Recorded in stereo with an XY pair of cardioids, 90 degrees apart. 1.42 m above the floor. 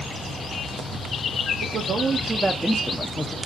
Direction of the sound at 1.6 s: 70° right.